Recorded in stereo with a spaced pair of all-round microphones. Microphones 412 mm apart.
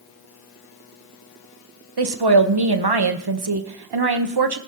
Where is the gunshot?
No gunshot in this recording.